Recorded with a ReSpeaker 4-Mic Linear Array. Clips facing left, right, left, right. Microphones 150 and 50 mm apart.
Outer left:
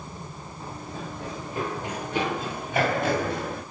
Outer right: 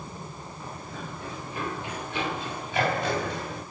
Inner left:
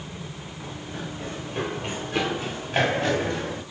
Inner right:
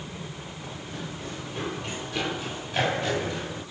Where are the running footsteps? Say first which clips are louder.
Outer left 3 dB, inner left 3 dB; 35° left (ahead or behind), 9.5 m; by 3.6 s 55° left (ahead or behind), 9 m.